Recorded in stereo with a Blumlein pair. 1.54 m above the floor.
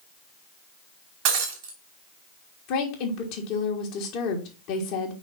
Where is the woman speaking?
40° left, 1.5 m.